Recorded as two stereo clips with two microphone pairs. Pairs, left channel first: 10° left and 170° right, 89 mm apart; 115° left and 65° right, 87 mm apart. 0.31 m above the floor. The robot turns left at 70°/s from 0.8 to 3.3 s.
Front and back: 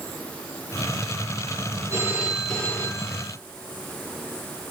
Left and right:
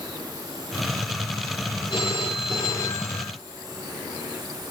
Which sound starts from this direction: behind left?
A phone ringing, at 1.9 s.